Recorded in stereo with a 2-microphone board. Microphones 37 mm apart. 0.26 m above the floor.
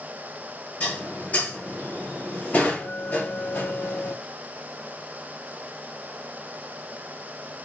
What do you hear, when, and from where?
0.8 s dishes clattering: 45° left (ahead or behind), 4 m